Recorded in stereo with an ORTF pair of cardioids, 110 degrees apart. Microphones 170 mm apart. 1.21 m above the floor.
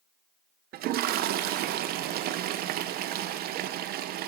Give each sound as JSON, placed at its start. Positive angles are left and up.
{"t": 0.7, "sound": "a toilet flushing", "azimuth_deg": -65, "distance_m": 0.5}